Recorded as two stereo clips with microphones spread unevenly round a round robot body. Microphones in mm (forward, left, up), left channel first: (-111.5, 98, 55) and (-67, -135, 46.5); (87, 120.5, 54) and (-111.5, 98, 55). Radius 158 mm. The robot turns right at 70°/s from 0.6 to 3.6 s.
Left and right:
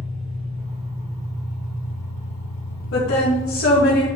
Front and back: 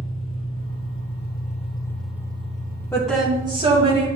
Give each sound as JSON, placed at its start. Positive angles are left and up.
{"t": 0.0, "sound": "an engine running", "azimuth_deg": -5, "distance_m": 2.5}
{"t": 2.9, "sound": "a woman speaking", "azimuth_deg": 85, "distance_m": 2.5}